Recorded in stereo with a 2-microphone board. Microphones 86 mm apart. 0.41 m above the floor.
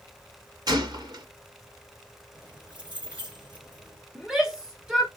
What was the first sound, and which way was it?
A gunshot, 55° right (ahead or behind).